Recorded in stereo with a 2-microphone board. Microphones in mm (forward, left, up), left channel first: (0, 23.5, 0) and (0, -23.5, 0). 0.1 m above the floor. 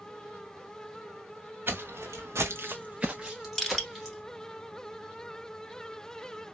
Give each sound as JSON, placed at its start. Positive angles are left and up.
{"t": 1.7, "sound": "footsteps", "side_deg": -60, "distance_m": 0.9}
{"t": 3.6, "sound": "crushing", "side_deg": 10, "distance_m": 1.2}